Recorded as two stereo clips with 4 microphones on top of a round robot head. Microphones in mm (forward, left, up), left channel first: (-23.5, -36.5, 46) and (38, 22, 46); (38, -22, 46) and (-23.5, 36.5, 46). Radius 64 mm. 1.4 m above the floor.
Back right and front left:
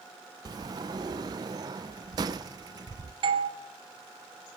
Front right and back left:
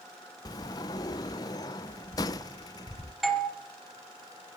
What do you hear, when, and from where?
0.5 s a sliding door: straight ahead, 0.6 m
3.2 s a doorbell: 45° left, 1.8 m